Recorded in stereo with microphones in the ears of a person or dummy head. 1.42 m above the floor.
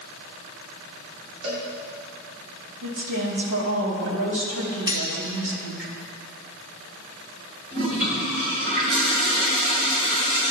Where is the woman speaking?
75° right (ahead or behind), 2.5 m.